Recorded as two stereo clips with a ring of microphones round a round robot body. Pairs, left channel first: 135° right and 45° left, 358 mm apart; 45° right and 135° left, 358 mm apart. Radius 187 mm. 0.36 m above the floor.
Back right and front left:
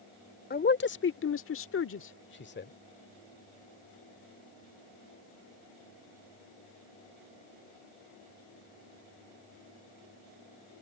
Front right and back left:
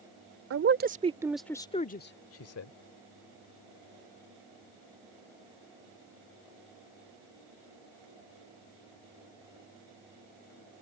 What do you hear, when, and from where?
0.5 s a man speaking: 170° left; by 2.7 s 80° right